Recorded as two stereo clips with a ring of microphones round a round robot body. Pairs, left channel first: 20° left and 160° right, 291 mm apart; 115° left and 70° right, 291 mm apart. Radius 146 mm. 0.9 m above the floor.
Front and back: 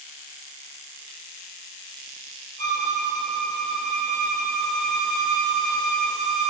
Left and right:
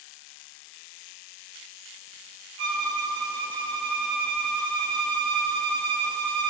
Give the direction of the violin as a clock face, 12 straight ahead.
3 o'clock.